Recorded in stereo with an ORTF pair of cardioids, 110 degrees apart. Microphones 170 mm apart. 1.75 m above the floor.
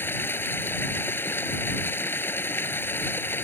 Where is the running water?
10° left.